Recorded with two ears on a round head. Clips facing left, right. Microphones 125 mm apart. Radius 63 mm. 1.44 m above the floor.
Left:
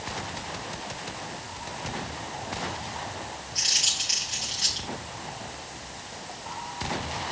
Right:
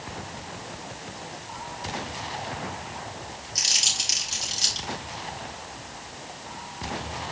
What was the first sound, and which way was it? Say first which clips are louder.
Crumpling: right 1 dB; 55° right (ahead or behind).